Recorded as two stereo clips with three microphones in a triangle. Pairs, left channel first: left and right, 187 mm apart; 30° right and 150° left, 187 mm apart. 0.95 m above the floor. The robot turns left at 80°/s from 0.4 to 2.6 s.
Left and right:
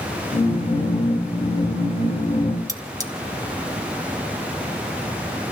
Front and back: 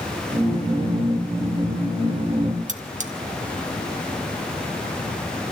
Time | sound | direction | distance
2.7 | cutlery clinking | 160° right | 1.1 m